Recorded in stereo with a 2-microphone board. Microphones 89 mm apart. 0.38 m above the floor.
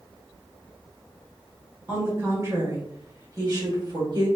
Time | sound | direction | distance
1.9 | a woman speaking | 25° right (ahead or behind) | 1.9 m